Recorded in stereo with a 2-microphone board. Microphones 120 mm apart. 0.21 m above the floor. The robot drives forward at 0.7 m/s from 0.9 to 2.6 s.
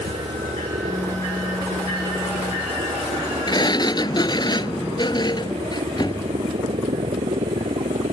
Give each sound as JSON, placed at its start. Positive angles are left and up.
{"t": 0.0, "sound": "a helicopter", "side_deg": -65}
{"t": 3.5, "sound": "a sliding door", "side_deg": 40}